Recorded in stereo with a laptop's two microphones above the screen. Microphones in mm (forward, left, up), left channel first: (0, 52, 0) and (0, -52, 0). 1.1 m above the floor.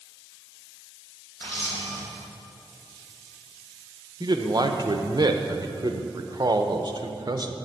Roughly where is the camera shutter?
Left.